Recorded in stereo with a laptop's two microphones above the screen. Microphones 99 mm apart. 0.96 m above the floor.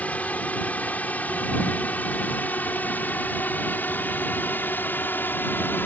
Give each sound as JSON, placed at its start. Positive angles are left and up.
{"t": 0.0, "sound": "a drone", "side_deg": 15}